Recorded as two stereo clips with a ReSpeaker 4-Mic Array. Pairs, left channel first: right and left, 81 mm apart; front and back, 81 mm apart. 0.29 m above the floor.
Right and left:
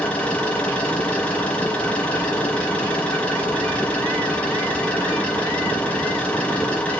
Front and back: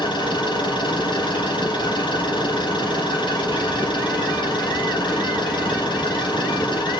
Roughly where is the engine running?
Ahead.